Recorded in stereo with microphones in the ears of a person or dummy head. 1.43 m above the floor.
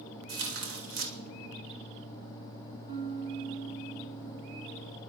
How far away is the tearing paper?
About 2.5 m.